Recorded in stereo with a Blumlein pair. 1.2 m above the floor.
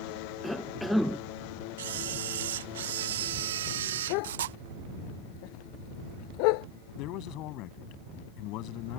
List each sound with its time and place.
0.4 s a cough: straight ahead
1.8 s a camera shutter: 60° right
4.1 s a dog barking: 45° left
7.0 s a man speaking: 40° left